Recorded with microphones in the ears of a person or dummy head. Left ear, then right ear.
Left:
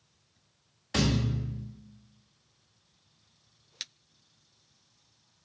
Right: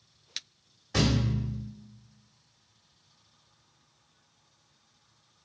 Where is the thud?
35° left (ahead or behind), 1.1 m.